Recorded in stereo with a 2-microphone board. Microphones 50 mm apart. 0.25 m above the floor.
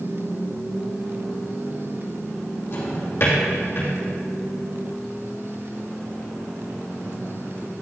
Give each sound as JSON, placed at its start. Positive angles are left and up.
{"t": 2.7, "sound": "a drawer", "side_deg": 60, "distance_m": 3.0}